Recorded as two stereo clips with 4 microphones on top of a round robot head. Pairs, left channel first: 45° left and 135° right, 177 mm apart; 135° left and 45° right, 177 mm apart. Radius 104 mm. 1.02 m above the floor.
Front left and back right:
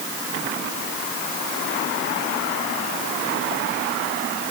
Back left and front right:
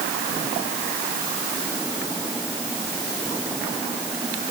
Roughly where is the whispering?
I don't hear whispering.